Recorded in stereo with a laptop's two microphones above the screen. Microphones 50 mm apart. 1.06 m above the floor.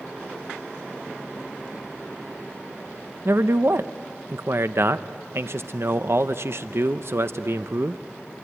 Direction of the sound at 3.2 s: 60° right (ahead or behind).